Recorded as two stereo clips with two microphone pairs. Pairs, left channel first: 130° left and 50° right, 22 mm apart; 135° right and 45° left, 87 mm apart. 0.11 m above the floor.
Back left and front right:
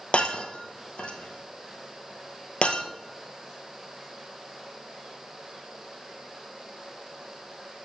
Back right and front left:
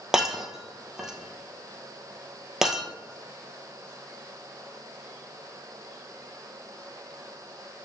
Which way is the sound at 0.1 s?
125° left.